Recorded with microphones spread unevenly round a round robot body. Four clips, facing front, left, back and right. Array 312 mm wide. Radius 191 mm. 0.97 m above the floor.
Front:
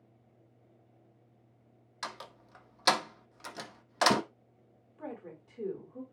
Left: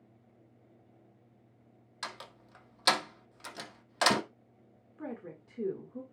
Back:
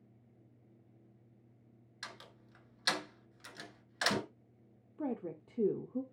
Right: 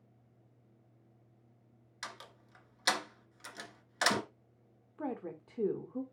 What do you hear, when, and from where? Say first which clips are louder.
2.0 s a door slam: left 4 dB, front 9 dB; 15° left, 1.5 m
5.0 s a woman speaking: right 3 dB, back 5 dB; 175° right, 1.3 m